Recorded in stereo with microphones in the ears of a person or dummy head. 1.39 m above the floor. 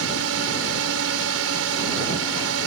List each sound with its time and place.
0.0 s a drone: 80° right